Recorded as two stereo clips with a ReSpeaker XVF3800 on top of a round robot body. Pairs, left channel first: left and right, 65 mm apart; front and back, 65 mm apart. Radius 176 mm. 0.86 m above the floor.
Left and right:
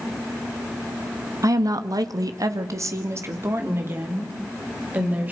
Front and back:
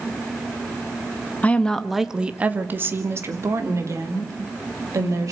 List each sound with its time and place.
1.4 s a woman speaking: 65° right, 1.4 m; by 5.3 s 155° right, 4.5 m